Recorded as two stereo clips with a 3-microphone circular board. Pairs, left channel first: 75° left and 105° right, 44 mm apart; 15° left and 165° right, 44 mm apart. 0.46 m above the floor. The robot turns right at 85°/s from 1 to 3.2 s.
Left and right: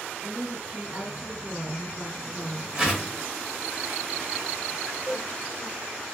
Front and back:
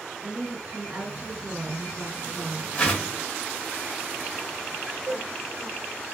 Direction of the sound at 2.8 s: 40° right.